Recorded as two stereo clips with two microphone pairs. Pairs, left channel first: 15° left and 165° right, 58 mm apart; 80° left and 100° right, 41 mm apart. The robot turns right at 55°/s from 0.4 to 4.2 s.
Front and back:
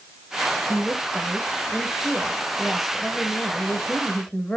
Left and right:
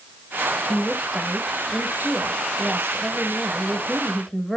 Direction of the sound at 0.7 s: Straight behind.